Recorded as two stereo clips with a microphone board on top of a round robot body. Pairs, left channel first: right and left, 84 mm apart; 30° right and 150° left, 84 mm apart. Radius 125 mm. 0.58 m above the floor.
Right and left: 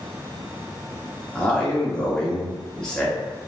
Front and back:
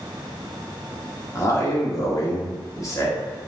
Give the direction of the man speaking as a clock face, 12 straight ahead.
12 o'clock.